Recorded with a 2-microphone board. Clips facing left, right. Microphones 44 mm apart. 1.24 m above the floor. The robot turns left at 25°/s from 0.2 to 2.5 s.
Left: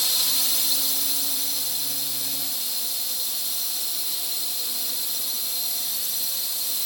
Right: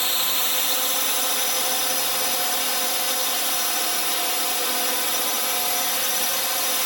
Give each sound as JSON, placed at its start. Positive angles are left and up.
{"t": 0.0, "sound": "a drone", "azimuth_deg": -40}